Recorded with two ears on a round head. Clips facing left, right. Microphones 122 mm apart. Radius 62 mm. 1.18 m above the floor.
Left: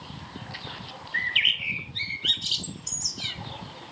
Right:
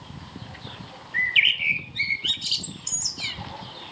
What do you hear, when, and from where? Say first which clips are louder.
1.1 s a bird: right 5 dB; 5° right (ahead or behind), 1.6 m